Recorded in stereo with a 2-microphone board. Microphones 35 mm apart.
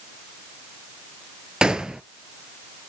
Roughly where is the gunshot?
Right.